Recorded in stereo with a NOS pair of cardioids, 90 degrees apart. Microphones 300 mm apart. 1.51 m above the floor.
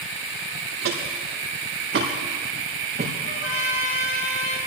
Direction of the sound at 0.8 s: 60° right.